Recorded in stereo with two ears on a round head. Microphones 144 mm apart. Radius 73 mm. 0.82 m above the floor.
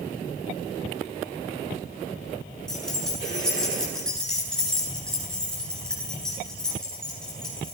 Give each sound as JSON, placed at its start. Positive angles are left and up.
{"t": 2.7, "sound": "keys jangling", "side_deg": 5, "distance_m": 7.5}